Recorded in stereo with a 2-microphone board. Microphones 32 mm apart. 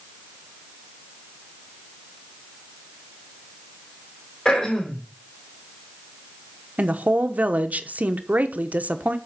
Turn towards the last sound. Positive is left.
turn(degrees=-55)  # may be behind; listen again after turning